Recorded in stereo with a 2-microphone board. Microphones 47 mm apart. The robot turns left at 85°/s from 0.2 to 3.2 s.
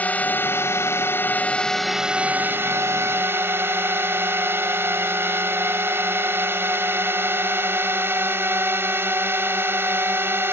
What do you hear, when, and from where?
0.0 s a drone: 145° left; by 10.5 s 110° right